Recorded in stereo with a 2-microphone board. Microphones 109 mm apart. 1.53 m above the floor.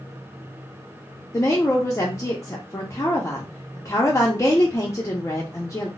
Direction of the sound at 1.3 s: 25° left (ahead or behind).